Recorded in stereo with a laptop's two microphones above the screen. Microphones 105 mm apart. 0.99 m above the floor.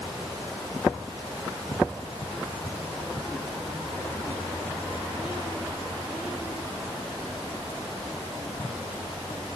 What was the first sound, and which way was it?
Only background noise.